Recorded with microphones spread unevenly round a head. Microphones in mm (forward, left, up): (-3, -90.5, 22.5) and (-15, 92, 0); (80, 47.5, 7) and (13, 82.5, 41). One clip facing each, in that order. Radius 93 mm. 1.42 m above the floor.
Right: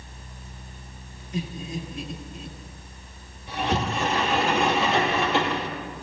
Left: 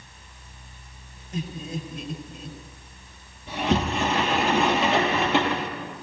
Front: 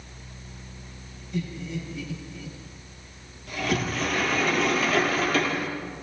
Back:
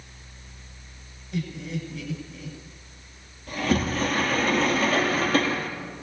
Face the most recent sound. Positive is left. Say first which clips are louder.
# left 2 dB, back 3 dB
turn(degrees=115)